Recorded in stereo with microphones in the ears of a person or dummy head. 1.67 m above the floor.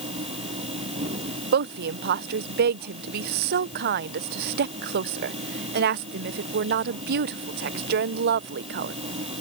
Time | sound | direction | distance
0.0 | a machine running | 30° right (ahead or behind) | ?
1.5 | a woman speaking | 40° right (ahead or behind) | ?